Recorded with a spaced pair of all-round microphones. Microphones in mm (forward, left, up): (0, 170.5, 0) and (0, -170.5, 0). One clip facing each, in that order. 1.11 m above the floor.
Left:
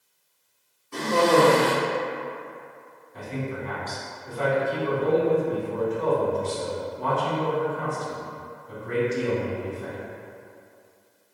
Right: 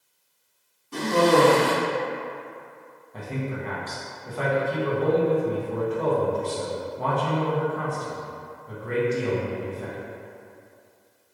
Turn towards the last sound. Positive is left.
turn(degrees=-80)